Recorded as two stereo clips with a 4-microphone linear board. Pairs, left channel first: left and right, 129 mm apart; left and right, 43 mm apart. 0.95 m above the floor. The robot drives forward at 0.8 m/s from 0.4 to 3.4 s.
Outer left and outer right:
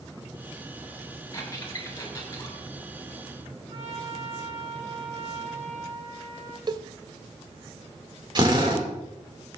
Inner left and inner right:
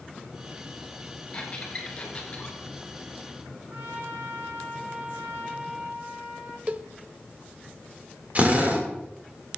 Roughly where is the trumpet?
Right.